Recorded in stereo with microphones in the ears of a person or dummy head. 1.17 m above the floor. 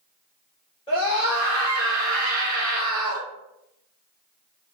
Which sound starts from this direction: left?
A scream, at 0.9 s.